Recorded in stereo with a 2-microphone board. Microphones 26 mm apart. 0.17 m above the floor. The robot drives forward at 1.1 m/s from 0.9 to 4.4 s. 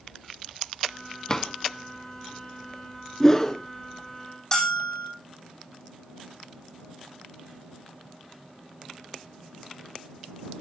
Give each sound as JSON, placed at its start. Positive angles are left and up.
{"t": 1.3, "sound": "a drawer", "side_deg": 25, "distance_m": 0.6}
{"t": 3.2, "sound": "a whoosh", "side_deg": 15, "distance_m": 1.2}
{"t": 4.5, "sound": "a bell", "side_deg": 20, "distance_m": 8.0}